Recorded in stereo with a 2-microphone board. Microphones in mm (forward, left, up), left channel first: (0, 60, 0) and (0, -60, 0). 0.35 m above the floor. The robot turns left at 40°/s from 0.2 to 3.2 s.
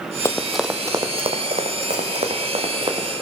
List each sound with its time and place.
0.2 s running footsteps: 25° left (ahead or behind), 0.7 m; by 3.1 s 35° right (ahead or behind), 2 m